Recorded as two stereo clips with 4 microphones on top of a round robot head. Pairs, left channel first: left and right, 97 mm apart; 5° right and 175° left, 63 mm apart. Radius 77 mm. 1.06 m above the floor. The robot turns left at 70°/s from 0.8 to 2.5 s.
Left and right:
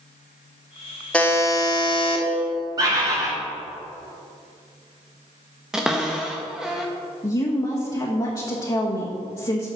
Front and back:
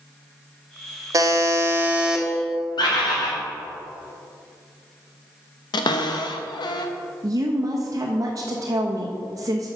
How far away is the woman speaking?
About 1.0 m.